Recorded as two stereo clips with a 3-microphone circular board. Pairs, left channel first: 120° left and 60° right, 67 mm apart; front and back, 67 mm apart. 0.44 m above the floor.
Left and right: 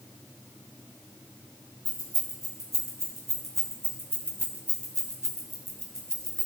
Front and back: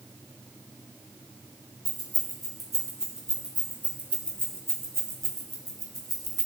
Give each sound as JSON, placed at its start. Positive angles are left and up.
{"t": 1.9, "sound": "keys jangling", "azimuth_deg": -90, "distance_m": 3.0}